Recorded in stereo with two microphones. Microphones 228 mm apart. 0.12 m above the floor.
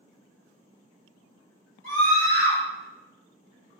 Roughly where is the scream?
Right.